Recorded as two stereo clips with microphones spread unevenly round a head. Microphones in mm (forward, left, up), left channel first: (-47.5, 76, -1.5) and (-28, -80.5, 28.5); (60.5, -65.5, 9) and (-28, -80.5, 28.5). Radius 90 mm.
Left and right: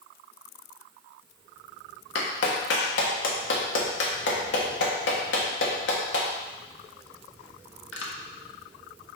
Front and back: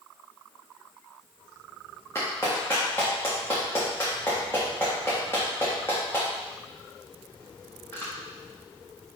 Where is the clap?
90° left, 1.4 m.